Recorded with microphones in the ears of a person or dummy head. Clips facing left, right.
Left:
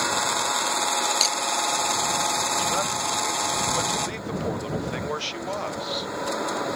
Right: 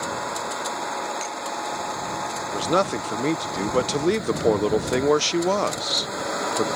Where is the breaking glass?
50° left (ahead or behind).